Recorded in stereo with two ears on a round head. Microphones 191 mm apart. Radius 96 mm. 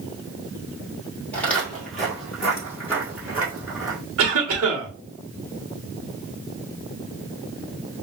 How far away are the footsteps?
About 1.7 m.